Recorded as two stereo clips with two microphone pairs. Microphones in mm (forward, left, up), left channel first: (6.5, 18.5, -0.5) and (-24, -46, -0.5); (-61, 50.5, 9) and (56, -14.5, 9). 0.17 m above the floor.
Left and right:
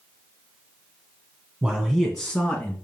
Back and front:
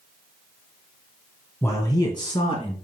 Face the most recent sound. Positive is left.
turn(degrees=130)